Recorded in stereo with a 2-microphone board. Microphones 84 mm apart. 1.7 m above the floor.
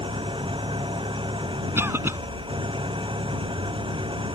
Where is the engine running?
85° right.